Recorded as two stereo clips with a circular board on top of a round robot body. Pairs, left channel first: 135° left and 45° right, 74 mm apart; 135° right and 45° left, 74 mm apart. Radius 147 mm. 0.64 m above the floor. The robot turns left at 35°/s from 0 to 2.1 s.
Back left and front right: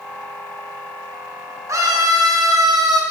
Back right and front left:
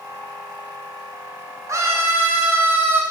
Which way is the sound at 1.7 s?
Straight ahead.